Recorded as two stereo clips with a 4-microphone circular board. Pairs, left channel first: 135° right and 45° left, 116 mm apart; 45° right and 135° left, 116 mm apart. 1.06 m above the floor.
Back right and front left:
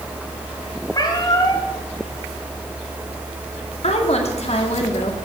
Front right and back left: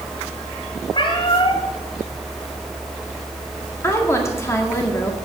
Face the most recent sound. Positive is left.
turn(degrees=-110)